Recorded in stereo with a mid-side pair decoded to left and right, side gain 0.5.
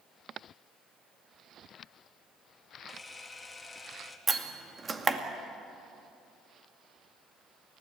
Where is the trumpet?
No trumpet in this recording.